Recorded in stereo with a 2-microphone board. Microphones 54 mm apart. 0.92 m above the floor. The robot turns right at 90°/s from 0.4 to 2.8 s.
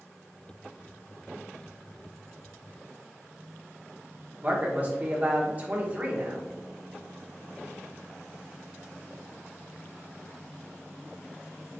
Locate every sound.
4.4 s a man speaking: 30° right (ahead or behind), 1.1 m